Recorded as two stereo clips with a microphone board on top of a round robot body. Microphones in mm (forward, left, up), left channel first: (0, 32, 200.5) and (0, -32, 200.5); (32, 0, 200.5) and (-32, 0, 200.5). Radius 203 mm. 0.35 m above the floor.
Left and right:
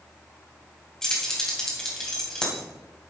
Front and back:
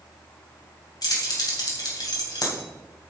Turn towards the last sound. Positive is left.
turn(degrees=10)